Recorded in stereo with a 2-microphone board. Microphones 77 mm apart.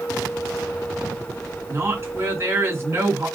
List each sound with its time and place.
1.7 s a woman speaking: 35° right (ahead or behind), 1.8 m